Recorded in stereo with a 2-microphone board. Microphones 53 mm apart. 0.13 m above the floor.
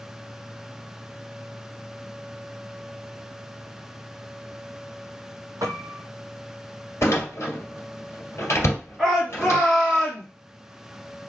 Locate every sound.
5.6 s a piano: 75° right (ahead or behind), 0.8 m
7.0 s a door slam: 55° left (ahead or behind), 1.5 m
9.0 s a shout: 5° right (ahead or behind), 1.6 m